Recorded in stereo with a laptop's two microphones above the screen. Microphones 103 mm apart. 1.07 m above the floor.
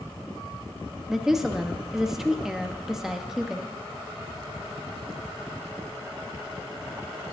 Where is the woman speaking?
5° right (ahead or behind), 1.1 m.